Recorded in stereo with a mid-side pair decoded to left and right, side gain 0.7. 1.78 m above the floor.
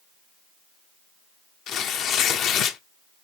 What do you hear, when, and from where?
1.7 s tearing paper: 50° left, 0.8 m